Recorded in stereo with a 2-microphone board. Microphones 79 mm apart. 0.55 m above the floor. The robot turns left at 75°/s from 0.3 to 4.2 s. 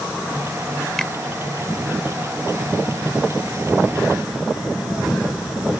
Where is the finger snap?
5° left (ahead or behind); by 1.1 s 15° left (ahead or behind).